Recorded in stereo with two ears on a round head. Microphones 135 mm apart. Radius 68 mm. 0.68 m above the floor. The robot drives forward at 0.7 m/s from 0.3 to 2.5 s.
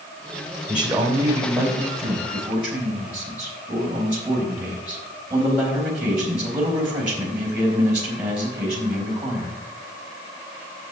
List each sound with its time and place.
0.7 s a man speaking: 10° right (ahead or behind), 2.5 m; by 9.5 s 5° right (ahead or behind), 4 m